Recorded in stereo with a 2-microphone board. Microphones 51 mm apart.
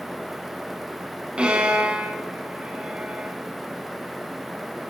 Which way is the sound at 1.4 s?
20° right (ahead or behind).